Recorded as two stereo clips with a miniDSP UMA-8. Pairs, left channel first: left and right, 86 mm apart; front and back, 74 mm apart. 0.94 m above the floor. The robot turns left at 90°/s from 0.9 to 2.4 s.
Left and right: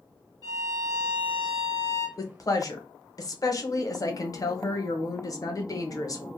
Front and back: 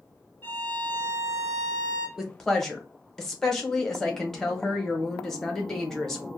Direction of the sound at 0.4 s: 50° left.